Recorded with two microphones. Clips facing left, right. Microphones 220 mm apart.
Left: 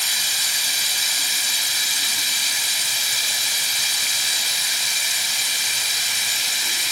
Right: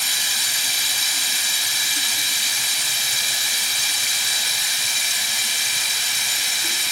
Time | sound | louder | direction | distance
0.0 | running water | right 1 dB | 55° right (ahead or behind) | 1.8 m